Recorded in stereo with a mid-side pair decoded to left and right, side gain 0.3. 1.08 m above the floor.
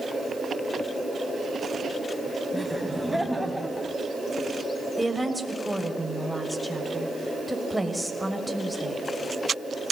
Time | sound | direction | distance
2.5 | laughter | straight ahead | 6.5 m
5.0 | a woman speaking | 5° left | 6.5 m